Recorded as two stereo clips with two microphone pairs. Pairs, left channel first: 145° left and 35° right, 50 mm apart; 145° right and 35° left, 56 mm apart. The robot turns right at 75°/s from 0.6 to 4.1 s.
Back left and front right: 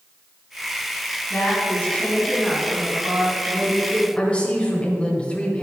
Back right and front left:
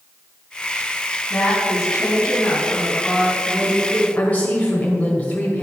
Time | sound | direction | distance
1.3 | a woman speaking | 155° left | 3 m
4.2 | a woman speaking | 175° right | 1.5 m